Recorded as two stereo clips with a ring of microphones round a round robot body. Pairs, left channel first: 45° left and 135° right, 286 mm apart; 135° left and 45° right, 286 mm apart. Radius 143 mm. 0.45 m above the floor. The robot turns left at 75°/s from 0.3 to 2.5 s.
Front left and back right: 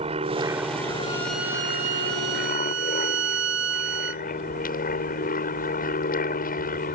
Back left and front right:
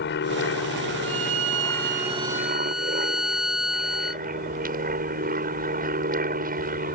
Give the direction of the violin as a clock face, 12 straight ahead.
1 o'clock.